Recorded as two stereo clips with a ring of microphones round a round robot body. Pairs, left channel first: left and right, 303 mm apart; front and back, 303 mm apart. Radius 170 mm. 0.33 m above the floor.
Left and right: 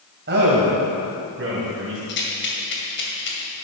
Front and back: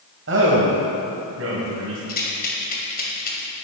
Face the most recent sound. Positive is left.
turn(degrees=50)